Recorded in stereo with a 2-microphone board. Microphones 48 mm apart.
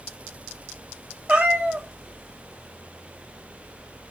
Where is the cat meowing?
25° right (ahead or behind), 0.7 m.